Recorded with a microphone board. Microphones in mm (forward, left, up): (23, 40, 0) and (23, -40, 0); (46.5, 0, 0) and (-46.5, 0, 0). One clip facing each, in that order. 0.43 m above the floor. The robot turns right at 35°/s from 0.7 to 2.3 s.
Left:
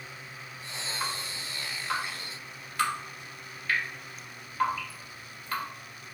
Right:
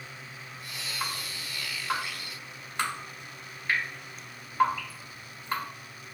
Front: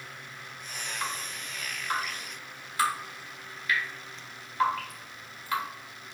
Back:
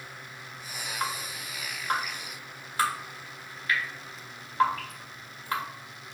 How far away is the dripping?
About 1.8 m.